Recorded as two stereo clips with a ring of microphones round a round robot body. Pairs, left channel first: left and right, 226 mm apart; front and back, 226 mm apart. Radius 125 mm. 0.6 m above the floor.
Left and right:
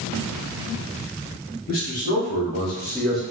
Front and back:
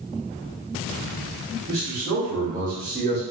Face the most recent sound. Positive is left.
turn(degrees=-175)